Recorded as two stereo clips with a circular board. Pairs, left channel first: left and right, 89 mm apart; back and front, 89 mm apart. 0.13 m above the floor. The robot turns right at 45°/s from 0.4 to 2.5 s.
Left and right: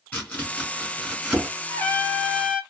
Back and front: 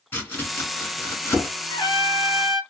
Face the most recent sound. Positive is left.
turn(degrees=-175)